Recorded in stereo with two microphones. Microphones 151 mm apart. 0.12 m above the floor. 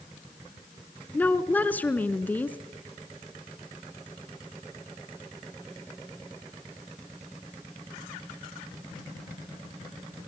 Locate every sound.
1.1 s a woman speaking: 10° left (ahead or behind), 1.3 m